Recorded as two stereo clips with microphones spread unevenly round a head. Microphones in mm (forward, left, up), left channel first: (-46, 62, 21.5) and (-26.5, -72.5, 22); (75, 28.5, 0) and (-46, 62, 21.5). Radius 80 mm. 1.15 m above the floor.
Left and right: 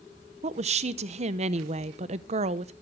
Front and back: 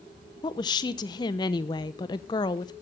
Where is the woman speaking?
60° right, 0.8 m.